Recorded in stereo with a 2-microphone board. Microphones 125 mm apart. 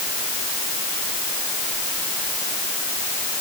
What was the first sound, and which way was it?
Only background noise.